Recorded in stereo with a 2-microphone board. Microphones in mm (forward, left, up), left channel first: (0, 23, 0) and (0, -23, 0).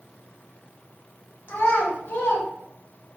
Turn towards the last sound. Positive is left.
turn(degrees=50)  # may be behind; listen again after turning